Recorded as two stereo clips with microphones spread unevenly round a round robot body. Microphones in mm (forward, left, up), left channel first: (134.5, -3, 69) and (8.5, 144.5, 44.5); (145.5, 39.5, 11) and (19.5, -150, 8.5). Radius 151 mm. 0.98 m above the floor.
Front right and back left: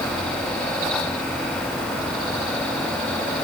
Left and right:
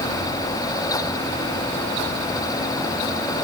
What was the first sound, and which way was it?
Only background noise.